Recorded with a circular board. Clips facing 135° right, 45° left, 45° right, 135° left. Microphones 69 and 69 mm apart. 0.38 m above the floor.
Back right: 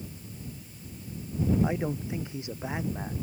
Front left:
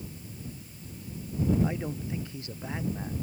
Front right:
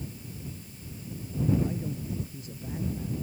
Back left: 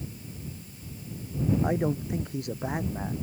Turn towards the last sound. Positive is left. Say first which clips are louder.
# back right 2 dB, back left 7 dB
turn(degrees=155)